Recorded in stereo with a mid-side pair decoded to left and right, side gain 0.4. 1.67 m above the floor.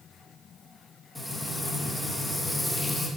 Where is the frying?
Straight ahead, 2.5 m.